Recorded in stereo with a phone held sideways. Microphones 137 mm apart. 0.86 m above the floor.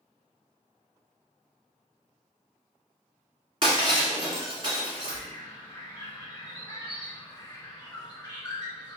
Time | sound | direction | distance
3.6 | breaking glass | 35° right (ahead or behind) | 1.6 m
5.0 | a bird | 30° left (ahead or behind) | 1.2 m